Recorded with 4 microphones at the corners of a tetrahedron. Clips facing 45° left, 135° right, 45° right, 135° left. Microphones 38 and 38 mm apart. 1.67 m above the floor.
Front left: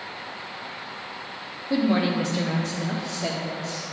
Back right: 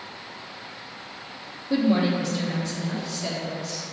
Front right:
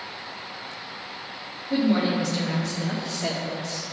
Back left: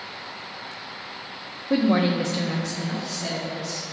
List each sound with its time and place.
1.7 s a woman speaking: 130° left, 0.9 m; by 3.8 s 5° left, 2.0 m